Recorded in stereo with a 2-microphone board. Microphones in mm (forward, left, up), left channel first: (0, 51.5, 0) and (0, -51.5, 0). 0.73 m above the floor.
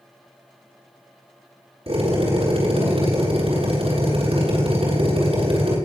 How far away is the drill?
About 9 m.